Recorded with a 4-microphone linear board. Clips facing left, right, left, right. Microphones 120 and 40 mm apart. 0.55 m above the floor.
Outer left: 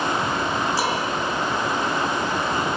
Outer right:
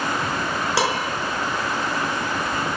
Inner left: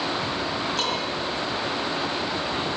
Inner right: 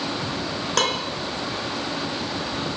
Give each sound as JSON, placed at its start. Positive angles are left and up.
{"t": 0.8, "sound": "dishes clattering", "side_deg": -80, "distance_m": 4.0}